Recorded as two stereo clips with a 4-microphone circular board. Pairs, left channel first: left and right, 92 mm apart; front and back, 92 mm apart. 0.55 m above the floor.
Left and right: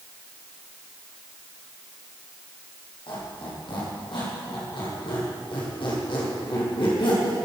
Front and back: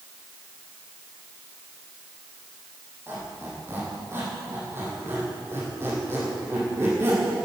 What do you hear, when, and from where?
3.1 s a squeak: 115° left, 6.5 m